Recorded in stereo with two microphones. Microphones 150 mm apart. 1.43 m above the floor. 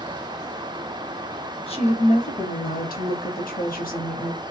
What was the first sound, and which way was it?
A woman speaking, 40° left (ahead or behind).